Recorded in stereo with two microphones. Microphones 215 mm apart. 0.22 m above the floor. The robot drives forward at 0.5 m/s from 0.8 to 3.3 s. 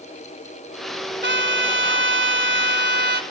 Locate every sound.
1.2 s a trumpet: 55° right (ahead or behind), 1.2 m; by 3.2 s 50° right (ahead or behind), 1.2 m